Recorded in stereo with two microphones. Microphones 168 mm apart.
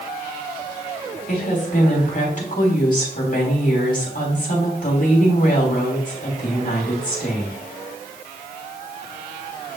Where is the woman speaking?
55° left (ahead or behind), 3.5 m.